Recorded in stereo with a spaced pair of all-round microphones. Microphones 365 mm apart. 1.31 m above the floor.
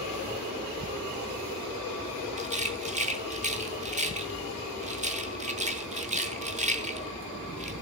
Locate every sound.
2.4 s a rattle: 20° right (ahead or behind), 1.1 m